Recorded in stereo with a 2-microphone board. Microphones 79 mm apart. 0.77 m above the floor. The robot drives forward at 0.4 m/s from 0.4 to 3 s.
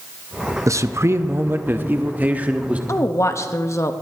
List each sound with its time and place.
0.7 s a man speaking: 40° right (ahead or behind), 0.5 m; by 2.8 s 20° right (ahead or behind), 1.1 m
2.9 s a woman speaking: 40° left (ahead or behind), 0.7 m